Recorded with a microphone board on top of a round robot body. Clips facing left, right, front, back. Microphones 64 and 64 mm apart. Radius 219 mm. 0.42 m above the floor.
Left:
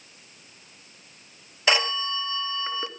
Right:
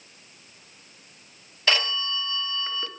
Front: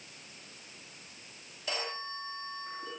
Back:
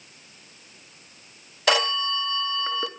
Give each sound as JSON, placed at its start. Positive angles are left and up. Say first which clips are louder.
{"t": 1.7, "sound": "a phone ringing", "louder": "left 2 dB, back 15 dB", "azimuth_deg": 165, "distance_m": 2.0}